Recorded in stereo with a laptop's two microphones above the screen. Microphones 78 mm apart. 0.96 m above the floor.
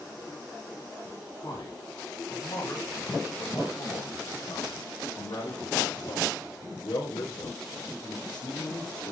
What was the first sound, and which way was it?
A man speaking, 50° left (ahead or behind).